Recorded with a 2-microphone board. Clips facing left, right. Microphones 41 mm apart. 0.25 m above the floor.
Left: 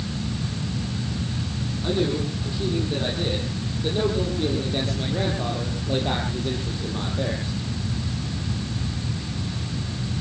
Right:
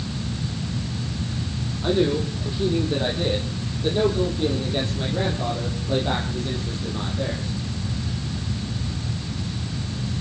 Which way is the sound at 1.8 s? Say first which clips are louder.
Right 3 dB; 20° right (ahead or behind).